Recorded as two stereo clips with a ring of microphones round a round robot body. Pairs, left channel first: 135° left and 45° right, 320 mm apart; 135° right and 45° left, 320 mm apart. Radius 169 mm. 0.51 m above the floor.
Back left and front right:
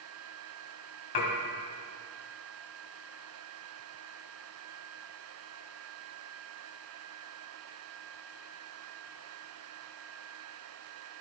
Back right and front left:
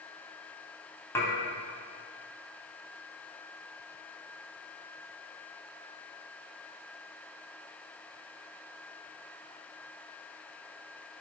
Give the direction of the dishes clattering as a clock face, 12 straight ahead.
7 o'clock.